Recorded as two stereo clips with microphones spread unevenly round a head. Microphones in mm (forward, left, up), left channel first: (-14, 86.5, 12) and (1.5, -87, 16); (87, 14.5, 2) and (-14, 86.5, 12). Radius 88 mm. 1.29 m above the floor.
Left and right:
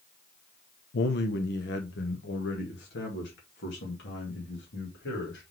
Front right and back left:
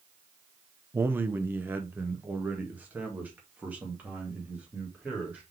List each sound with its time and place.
0.9 s a man speaking: 70° left, 0.7 m; by 5.4 s 65° left, 3.5 m